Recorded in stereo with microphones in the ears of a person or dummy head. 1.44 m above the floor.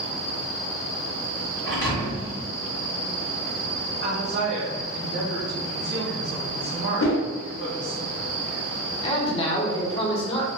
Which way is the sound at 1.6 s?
20° left (ahead or behind).